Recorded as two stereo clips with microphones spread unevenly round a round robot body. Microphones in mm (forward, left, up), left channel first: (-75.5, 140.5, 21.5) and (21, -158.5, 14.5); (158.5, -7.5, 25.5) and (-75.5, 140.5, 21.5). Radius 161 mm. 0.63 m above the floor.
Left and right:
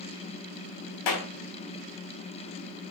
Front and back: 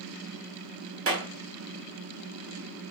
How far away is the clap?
About 4.5 m.